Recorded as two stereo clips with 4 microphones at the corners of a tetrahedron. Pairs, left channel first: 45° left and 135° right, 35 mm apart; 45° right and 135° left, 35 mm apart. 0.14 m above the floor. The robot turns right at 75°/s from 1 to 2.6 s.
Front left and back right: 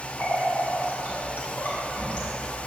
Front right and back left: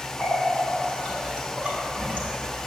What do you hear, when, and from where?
0.2 s a running tap: 15° left, 2.5 m; by 2.3 s 110° left, 2.5 m